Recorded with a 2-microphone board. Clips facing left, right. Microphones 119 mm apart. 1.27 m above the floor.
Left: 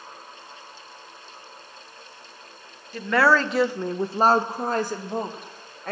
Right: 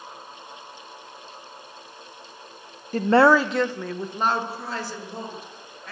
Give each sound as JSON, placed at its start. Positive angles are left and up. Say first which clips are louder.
{"t": 2.9, "sound": "a woman speaking", "louder": "right 4 dB", "side_deg": -45, "distance_m": 0.5}